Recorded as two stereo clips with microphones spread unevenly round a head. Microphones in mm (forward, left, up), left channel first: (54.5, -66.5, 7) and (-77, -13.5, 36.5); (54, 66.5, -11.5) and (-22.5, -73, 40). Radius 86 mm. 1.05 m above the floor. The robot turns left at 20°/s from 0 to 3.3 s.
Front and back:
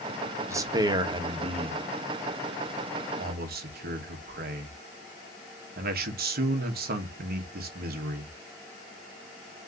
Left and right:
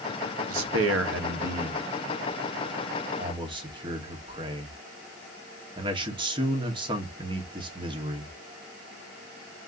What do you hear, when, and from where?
0.5 s a man speaking: 130° right, 1.2 m; by 8.3 s 175° left, 1.2 m